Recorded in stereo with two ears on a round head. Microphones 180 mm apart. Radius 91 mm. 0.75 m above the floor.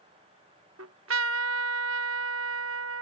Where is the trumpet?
70° right (ahead or behind).